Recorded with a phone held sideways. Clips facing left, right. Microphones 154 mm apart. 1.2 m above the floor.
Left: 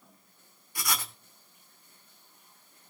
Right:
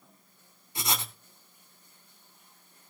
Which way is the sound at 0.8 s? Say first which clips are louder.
Right 2 dB; 25° right (ahead or behind).